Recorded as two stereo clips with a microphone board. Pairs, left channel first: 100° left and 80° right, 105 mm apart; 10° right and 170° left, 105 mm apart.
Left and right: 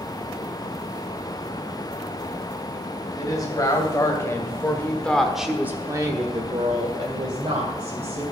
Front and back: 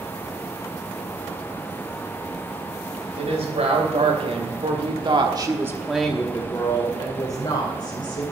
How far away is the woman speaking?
About 3 m.